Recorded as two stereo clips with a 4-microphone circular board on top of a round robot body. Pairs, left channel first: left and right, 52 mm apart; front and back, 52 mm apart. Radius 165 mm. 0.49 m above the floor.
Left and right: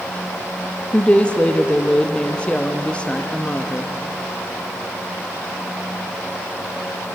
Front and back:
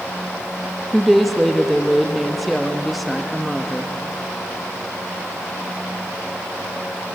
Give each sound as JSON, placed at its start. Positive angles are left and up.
{"t": 0.9, "sound": "a woman speaking", "azimuth_deg": 90, "distance_m": 1.3}